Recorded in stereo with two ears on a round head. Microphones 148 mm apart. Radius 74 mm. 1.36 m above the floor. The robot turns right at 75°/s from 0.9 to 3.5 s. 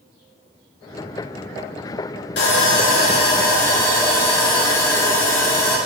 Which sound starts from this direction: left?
Sawing, at 2.4 s.